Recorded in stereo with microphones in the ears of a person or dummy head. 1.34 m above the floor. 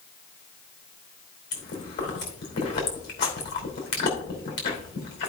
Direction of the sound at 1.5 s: 50° left (ahead or behind).